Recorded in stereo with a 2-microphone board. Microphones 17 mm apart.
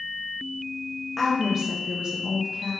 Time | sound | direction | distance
1.2 | a woman speaking | 5° left (ahead or behind) | 1.1 m